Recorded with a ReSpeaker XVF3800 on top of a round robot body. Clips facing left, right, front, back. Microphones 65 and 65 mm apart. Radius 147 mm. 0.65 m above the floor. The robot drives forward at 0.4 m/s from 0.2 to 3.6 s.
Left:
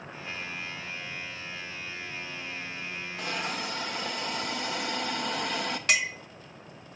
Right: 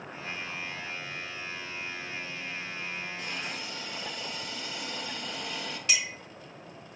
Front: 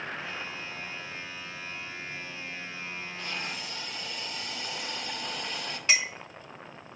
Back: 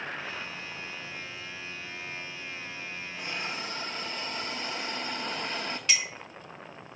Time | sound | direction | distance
3.2 | a hiss | 105° left | 0.6 m
5.9 | a clink | 60° left | 0.9 m